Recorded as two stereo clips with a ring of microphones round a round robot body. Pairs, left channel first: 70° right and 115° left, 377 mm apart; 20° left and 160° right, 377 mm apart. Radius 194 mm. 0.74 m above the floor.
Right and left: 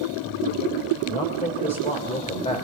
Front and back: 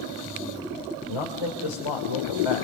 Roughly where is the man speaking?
Ahead.